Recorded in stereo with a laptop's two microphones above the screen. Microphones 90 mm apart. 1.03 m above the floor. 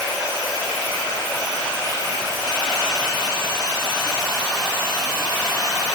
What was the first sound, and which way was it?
Only background noise.